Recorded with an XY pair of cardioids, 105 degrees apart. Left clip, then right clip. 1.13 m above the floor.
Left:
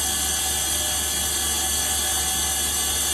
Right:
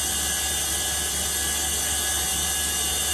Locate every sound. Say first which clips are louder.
0.0 s a machine running: left 2 dB; 40° left, 1.9 m